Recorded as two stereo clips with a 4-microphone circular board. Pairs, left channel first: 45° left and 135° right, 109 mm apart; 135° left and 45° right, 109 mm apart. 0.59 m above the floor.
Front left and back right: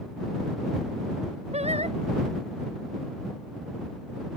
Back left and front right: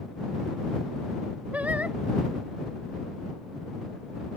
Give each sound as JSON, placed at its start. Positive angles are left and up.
{"t": 1.5, "sound": "singing", "azimuth_deg": -125}